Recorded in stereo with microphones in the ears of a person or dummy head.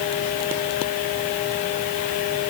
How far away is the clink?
No clink in this recording.